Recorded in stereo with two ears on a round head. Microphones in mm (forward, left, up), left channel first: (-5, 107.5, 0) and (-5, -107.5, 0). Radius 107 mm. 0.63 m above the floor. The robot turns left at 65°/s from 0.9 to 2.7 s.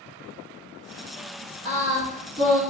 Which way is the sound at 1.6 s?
90° right.